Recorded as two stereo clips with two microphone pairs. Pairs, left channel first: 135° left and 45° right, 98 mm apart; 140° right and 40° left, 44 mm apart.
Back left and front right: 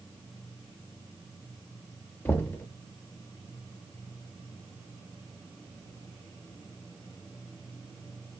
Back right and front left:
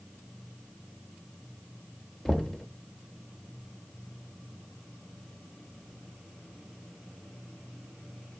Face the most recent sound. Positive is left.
turn(degrees=155)